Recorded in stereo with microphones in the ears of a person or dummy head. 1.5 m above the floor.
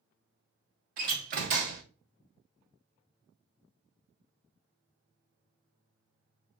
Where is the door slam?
50° right (ahead or behind), 0.7 m.